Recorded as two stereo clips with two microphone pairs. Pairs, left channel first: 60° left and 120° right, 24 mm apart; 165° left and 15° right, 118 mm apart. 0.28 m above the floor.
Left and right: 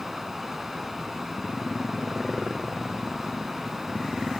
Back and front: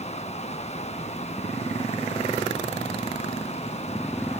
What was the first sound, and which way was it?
Running water, 165° left.